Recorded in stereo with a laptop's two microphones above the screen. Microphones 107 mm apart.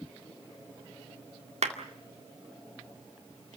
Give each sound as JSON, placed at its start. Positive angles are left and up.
{"t": 1.6, "sound": "a clap", "side_deg": -75, "distance_m": 1.9}